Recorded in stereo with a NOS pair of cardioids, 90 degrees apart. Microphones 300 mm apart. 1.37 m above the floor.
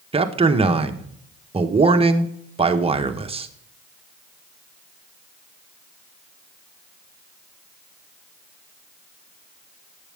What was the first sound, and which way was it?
A man speaking, 20° right.